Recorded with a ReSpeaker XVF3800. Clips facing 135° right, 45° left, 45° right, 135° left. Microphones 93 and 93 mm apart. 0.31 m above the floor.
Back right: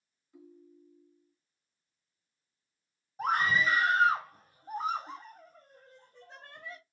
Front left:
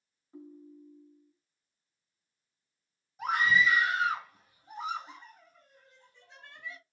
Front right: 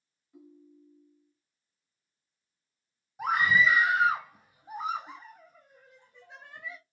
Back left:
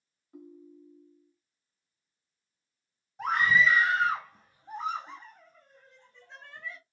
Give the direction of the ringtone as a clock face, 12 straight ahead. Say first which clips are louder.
Front left 6 dB, back left 5 dB; 9 o'clock.